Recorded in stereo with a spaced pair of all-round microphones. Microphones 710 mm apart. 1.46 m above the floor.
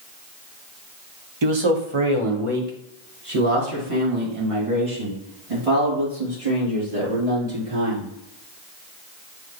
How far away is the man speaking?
About 0.6 m.